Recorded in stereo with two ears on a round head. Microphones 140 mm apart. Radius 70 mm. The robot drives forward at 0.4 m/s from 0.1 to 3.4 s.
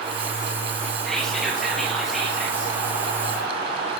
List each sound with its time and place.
1.1 s whispering: centre (ahead or behind), 0.8 m